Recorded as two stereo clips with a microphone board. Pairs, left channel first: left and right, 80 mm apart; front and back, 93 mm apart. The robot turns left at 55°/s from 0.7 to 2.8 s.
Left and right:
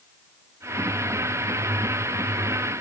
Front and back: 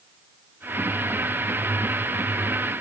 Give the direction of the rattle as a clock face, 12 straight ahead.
I don't hear a rattle.